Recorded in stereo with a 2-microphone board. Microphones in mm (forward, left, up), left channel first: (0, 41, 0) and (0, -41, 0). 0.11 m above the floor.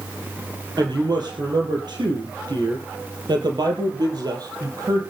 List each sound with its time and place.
0.8 s a woman speaking: 55° right (ahead or behind), 3.5 m; by 5.0 s 45° right (ahead or behind), 4 m